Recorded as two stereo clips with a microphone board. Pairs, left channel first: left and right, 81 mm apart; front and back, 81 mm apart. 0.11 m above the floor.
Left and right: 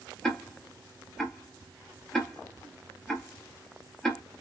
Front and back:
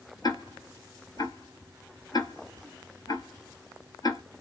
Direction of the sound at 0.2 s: 5° left.